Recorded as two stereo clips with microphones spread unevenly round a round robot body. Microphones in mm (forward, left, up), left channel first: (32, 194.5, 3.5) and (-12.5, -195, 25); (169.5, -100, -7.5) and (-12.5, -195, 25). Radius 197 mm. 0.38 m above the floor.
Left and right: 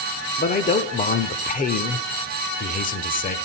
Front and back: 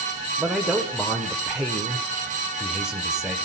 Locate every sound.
0.4 s a man speaking: 105° left, 0.8 m